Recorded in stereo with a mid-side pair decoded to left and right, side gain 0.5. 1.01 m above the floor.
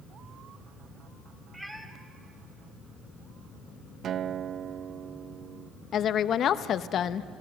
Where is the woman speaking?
60° left, 0.8 m.